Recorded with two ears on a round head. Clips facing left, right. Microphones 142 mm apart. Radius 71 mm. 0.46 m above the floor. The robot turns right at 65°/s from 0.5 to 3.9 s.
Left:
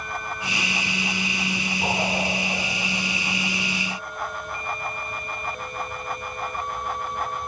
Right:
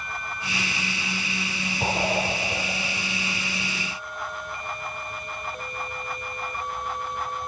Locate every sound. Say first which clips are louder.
1.8 s a whoosh: right 1 dB; 25° right (ahead or behind), 4.5 m; by 2.6 s 80° right, 4.5 m